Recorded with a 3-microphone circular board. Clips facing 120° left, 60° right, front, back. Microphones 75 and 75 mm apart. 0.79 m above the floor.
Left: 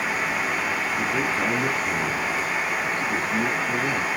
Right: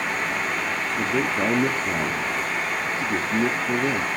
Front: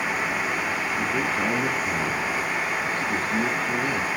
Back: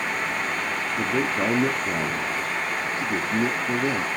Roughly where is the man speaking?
Behind right.